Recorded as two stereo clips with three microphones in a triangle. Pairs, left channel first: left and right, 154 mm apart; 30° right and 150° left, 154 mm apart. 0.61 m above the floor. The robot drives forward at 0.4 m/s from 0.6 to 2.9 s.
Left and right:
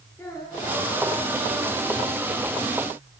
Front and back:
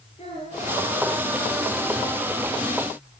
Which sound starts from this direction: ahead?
A child speaking, at 0.2 s.